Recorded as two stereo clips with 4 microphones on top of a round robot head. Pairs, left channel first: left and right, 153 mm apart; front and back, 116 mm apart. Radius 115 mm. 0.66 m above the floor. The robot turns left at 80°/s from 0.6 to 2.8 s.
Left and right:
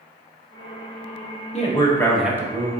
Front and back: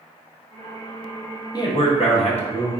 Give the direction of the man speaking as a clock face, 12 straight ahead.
10 o'clock.